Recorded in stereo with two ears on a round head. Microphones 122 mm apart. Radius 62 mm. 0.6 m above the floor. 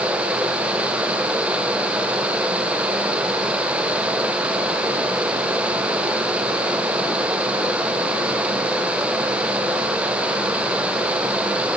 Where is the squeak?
No squeak in this recording.